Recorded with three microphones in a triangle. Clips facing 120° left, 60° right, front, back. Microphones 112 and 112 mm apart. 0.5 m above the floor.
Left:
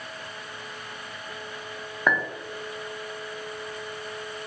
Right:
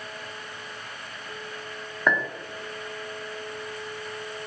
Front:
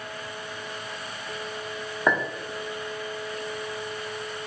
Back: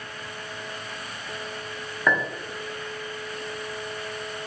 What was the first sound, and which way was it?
A clink, 40° left.